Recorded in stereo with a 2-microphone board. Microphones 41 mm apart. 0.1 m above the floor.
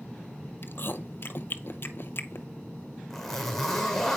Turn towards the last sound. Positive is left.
turn(degrees=5)  # may be behind; listen again after turning